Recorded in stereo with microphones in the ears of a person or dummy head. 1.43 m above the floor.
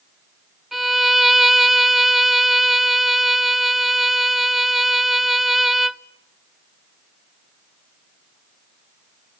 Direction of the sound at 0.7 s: Centre (ahead or behind).